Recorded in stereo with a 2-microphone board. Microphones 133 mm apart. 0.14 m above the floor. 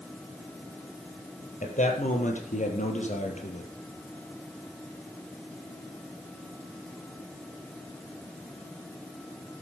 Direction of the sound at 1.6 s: 70° left (ahead or behind).